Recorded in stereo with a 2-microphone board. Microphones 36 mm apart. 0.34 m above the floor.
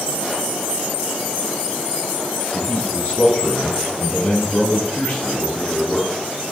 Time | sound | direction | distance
2.5 | a man speaking | 60° left (ahead or behind) | 3 m